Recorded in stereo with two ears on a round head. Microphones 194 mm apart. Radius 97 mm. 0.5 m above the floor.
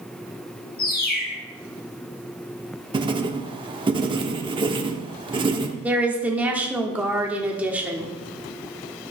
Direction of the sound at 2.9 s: 25° right (ahead or behind).